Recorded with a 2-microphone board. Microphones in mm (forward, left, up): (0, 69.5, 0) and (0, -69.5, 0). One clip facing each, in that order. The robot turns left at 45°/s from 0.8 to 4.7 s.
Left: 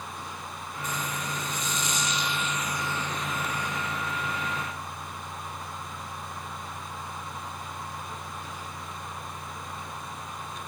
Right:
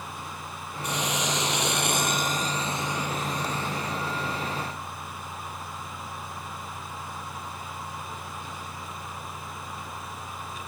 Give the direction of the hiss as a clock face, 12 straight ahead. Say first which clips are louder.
Right 5 dB; 2 o'clock.